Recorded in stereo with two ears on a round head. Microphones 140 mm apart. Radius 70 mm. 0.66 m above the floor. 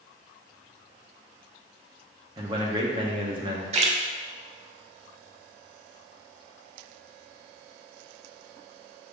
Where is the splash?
40° right (ahead or behind), 0.6 m.